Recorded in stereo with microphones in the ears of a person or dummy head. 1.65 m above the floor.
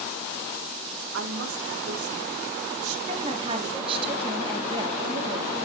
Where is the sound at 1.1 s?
75° right (ahead or behind), 1.5 m.